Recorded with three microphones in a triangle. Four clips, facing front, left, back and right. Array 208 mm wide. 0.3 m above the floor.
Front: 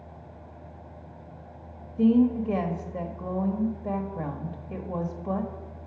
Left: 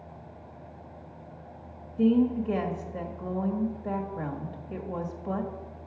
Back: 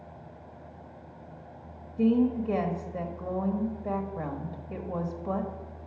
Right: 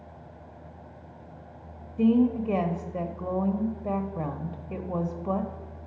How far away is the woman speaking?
About 0.9 m.